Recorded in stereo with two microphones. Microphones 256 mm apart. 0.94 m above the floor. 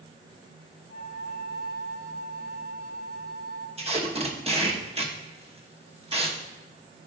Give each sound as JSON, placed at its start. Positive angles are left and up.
{"t": 0.9, "sound": "a flute", "side_deg": 70, "distance_m": 0.8}
{"t": 3.8, "sound": "tape being pulled", "side_deg": -25, "distance_m": 1.0}